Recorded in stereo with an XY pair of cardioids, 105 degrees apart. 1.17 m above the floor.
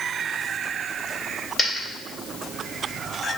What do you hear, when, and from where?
1.6 s a dropped coin: 40° left, 2.0 m